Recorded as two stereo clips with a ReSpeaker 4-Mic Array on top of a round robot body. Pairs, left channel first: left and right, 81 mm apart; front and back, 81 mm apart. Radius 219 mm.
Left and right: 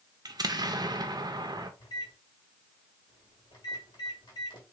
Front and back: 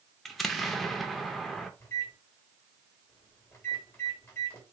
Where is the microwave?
60° left, 1.8 m.